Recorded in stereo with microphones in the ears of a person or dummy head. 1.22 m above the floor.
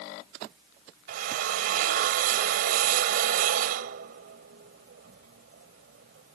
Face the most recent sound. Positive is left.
turn(degrees=-55)  # may be behind; listen again after turning